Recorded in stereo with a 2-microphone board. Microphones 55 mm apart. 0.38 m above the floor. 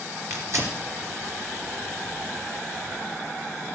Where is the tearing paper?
55° right (ahead or behind), 2.5 m.